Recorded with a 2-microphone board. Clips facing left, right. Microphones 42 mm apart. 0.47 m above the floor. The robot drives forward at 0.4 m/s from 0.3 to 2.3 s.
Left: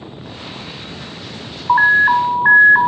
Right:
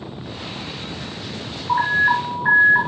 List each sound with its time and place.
1.7 s an alarm: 35° left (ahead or behind), 1.8 m; by 2.9 s 30° left (ahead or behind), 2.0 m